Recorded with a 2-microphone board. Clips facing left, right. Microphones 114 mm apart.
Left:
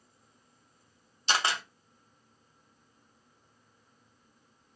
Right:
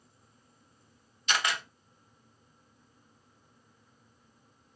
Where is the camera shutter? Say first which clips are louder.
Left 1 dB; 30° left (ahead or behind), 0.7 m.